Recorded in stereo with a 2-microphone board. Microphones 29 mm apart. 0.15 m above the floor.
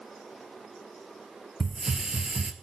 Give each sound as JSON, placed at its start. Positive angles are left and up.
{"t": 1.6, "sound": "a hiss", "side_deg": -25, "distance_m": 1.1}